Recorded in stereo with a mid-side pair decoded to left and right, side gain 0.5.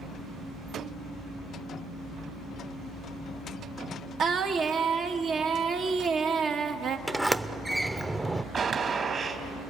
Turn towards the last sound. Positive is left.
turn(degrees=-45)